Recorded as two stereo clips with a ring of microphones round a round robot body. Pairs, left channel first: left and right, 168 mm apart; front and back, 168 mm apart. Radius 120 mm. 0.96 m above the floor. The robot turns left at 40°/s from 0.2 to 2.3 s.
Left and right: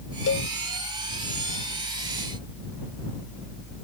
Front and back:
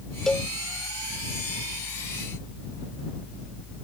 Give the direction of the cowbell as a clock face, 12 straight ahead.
9 o'clock.